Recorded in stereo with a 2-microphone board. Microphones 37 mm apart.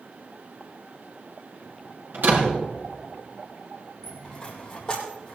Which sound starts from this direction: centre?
A dropped coin, at 4.0 s.